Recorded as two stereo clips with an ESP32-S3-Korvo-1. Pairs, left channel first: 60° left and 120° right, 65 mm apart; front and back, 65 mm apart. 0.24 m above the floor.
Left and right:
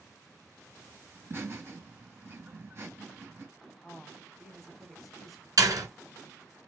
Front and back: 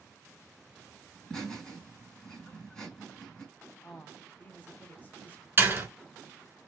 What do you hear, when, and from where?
1.1 s laughter: 75° right, 2.5 m
3.8 s a woman speaking: 25° right, 1.4 m
5.6 s a door slam: 125° right, 2.5 m